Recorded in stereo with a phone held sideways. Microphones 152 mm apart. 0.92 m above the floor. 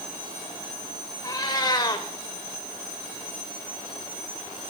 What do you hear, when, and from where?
1.2 s a cat meowing: 30° left (ahead or behind), 1.1 m